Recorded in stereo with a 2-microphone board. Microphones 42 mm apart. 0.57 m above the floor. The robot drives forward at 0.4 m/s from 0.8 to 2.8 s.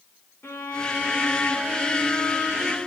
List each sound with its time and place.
0.4 s a violin: 85° left, 3 m; by 2.8 s 70° left (ahead or behind), 3 m